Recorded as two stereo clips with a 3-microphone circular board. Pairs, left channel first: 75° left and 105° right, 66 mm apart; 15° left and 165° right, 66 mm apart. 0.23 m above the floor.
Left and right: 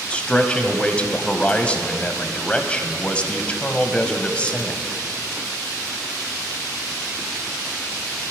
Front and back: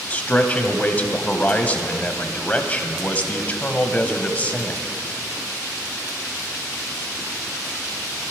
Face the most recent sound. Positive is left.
turn(degrees=35)